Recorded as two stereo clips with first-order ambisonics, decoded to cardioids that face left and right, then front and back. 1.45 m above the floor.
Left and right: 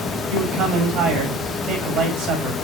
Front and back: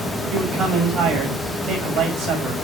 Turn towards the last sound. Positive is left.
turn(degrees=-140)